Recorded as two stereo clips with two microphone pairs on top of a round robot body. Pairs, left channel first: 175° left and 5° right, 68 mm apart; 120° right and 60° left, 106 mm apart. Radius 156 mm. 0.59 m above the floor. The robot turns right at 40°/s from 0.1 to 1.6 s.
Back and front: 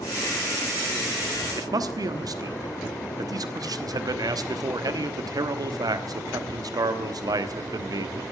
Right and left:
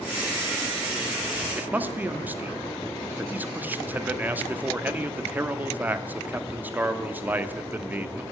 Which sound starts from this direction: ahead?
A man speaking, at 1.6 s.